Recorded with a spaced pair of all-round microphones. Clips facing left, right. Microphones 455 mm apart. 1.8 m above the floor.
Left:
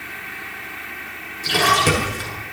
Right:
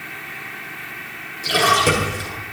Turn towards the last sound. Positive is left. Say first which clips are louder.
# right 1 dB
turn(degrees=15)  # may be behind; listen again after turning